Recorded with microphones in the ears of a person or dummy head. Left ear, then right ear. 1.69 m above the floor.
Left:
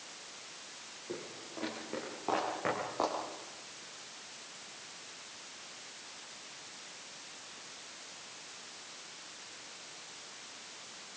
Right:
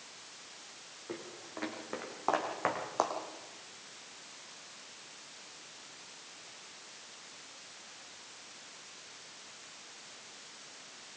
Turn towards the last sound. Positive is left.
turn(degrees=-45)  # may be behind; listen again after turning